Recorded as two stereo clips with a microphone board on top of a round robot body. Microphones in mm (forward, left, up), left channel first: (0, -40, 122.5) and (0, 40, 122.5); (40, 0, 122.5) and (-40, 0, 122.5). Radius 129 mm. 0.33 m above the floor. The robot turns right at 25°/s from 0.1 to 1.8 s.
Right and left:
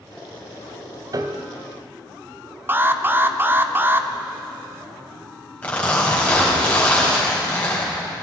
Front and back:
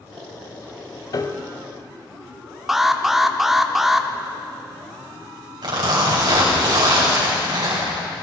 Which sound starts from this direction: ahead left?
A piano, at 1.1 s.